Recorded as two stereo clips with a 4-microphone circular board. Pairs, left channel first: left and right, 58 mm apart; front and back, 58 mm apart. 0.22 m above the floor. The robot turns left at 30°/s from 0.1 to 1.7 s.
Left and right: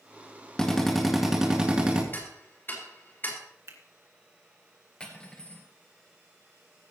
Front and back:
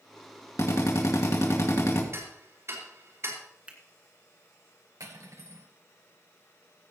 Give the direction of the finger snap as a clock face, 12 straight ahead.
4 o'clock.